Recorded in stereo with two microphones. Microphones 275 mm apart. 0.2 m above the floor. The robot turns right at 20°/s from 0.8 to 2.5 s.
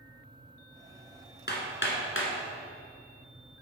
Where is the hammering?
40° left (ahead or behind), 1.5 m; by 2.3 s 50° left (ahead or behind), 1.5 m.